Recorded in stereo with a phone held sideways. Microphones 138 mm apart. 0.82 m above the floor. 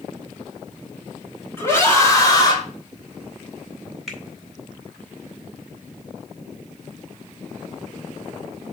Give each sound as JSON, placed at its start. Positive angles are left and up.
{"t": 1.6, "sound": "a scream", "side_deg": 20, "distance_m": 3.5}
{"t": 4.1, "sound": "a finger snap", "side_deg": -5, "distance_m": 3.5}